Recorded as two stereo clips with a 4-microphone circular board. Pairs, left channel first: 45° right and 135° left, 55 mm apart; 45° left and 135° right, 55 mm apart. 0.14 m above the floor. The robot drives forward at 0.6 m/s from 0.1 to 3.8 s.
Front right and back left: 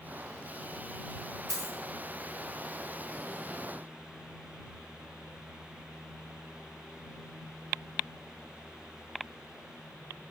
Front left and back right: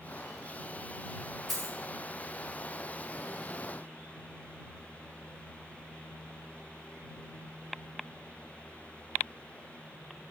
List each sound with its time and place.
1.5 s a dropped coin: 135° left, 1.7 m; by 1.8 s 140° left, 1.8 m